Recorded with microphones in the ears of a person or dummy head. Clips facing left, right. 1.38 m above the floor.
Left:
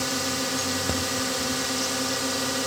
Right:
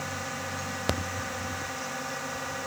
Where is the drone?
55° left (ahead or behind); by 2.7 s 50° left (ahead or behind).